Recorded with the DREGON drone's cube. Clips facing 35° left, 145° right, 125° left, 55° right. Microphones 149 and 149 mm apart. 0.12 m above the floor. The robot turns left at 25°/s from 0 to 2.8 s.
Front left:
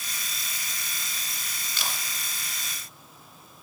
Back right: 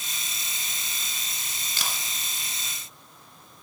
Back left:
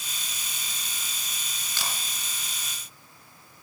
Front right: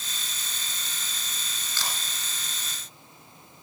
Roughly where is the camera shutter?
Behind.